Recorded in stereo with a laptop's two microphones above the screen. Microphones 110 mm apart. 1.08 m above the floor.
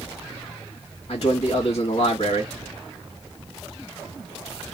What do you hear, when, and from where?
1.1 s a man speaking: 70° left (ahead or behind), 1.8 m